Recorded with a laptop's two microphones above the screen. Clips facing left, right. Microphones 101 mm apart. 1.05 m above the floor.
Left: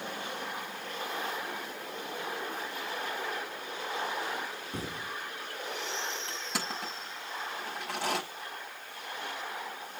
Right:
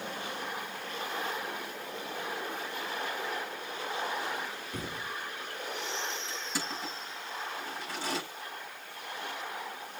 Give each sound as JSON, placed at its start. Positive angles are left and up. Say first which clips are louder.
{"t": 4.7, "sound": "a thud", "louder": "even", "side_deg": 30, "distance_m": 4.5}
{"t": 6.3, "sound": "crushing", "louder": "even", "side_deg": 70, "distance_m": 5.5}